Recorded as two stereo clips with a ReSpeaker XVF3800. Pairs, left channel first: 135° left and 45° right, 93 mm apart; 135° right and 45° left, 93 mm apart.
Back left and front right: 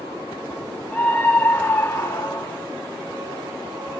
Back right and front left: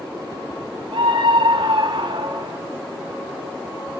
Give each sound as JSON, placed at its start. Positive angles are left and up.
{"t": 0.9, "sound": "a scream", "azimuth_deg": 60, "distance_m": 4.0}